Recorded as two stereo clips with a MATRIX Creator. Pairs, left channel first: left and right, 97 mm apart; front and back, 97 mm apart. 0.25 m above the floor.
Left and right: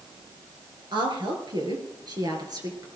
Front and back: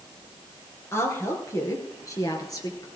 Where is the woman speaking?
60° right, 3.5 m; by 2.9 s 45° right, 3.5 m.